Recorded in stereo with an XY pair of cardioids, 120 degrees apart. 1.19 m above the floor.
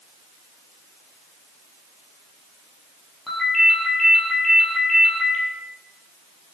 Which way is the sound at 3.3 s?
20° left.